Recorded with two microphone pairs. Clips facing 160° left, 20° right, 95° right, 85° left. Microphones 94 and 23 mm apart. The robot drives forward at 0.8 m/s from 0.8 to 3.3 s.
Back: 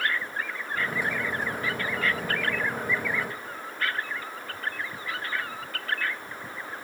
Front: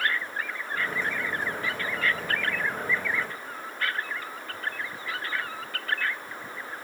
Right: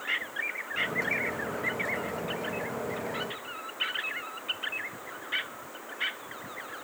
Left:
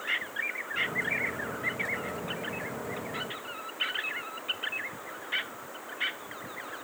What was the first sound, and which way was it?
Only background noise.